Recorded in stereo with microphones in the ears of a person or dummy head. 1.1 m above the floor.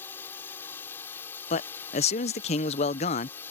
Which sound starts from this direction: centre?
A drone, at 0.0 s.